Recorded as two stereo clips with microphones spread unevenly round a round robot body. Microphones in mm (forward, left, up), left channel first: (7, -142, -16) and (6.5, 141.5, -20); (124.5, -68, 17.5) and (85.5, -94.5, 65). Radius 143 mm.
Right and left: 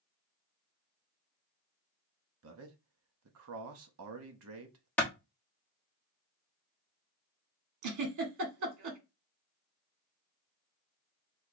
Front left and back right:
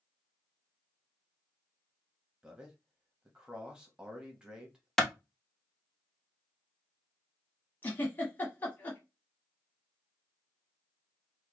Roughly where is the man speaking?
Left.